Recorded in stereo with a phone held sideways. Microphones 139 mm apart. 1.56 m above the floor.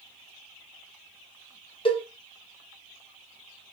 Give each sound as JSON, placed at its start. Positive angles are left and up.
{"t": 1.9, "sound": "a cowbell", "side_deg": 40, "distance_m": 0.8}